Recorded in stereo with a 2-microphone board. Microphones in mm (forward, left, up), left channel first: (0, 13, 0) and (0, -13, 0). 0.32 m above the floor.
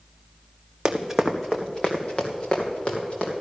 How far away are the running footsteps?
About 1.1 m.